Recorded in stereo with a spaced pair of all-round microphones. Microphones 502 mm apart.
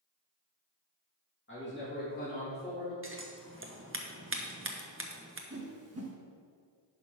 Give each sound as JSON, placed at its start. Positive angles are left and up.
{"t": 1.5, "sound": "a man speaking", "side_deg": 25, "distance_m": 2.5}
{"t": 3.0, "sound": "scissors", "side_deg": -25, "distance_m": 0.8}
{"t": 5.5, "sound": "a whoosh", "side_deg": -30, "distance_m": 1.1}